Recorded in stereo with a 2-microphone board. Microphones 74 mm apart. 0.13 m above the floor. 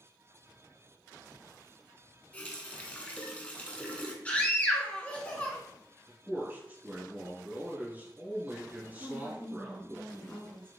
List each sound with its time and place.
2.3 s a running tap: 20° left (ahead or behind), 0.8 m
4.2 s a scream: 20° left (ahead or behind), 1.1 m
6.1 s a man speaking: 20° right (ahead or behind), 1.6 m
9.0 s a woman speaking: 15° left (ahead or behind), 1.3 m